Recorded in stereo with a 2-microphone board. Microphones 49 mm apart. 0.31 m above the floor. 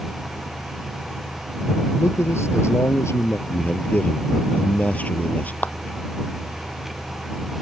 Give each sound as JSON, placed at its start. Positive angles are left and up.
{"t": 2.0, "sound": "a man speaking", "side_deg": 75}
{"t": 3.5, "sound": "a man speaking", "side_deg": 35}
{"t": 5.6, "sound": "a clap", "side_deg": 40}